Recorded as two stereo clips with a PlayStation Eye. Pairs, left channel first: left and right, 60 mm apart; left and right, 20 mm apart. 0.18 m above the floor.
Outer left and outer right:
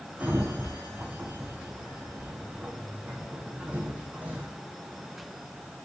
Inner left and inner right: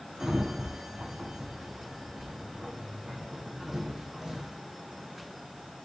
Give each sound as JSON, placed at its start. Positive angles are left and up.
{"t": 0.2, "sound": "a sliding door", "side_deg": -25, "distance_m": 2.5}